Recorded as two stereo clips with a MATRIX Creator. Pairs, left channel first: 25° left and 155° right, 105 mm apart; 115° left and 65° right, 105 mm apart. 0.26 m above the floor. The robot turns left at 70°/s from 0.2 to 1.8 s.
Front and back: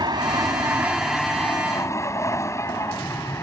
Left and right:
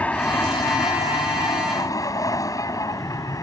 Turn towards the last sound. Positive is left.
turn(degrees=70)